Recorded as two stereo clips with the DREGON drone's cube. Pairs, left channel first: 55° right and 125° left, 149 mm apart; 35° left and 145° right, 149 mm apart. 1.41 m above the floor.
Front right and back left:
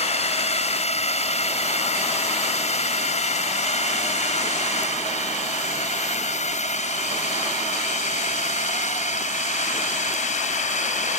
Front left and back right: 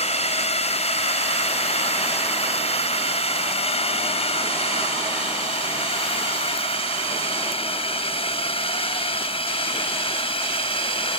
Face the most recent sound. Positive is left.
turn(degrees=-20)